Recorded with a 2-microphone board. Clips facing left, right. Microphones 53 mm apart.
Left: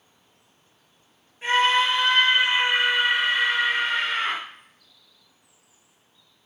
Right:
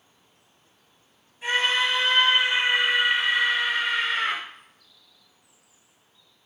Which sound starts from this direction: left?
A scream, at 1.4 s.